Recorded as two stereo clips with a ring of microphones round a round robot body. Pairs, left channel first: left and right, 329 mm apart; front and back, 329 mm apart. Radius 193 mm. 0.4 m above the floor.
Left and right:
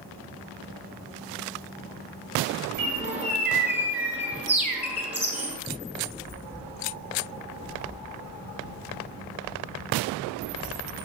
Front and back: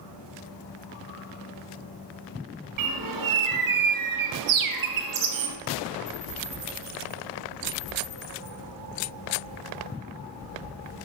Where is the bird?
175° right, 1.8 m.